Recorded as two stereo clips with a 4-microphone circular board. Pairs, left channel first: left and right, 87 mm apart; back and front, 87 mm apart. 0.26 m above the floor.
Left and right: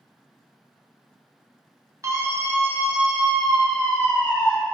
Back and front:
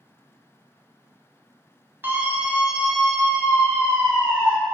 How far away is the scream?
About 1.6 m.